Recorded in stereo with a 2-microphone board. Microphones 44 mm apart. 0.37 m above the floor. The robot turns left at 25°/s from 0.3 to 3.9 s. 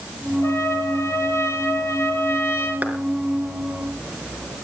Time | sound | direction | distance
0.4 | a trumpet | 110° left | 2.5 m
2.8 | a clap | 30° right (ahead or behind) | 4 m